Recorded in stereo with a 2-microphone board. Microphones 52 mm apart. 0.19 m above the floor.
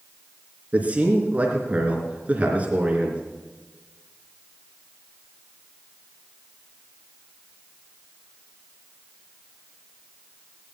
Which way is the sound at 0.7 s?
25° right (ahead or behind).